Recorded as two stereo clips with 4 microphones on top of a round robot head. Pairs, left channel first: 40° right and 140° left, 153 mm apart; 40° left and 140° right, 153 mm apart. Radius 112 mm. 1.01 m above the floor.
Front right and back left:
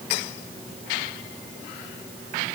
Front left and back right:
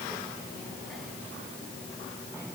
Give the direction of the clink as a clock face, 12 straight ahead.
No clink in this recording.